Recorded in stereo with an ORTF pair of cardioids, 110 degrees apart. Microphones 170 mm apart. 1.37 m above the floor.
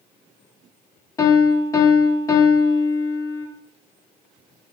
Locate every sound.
1.2 s a piano: 20° left, 0.6 m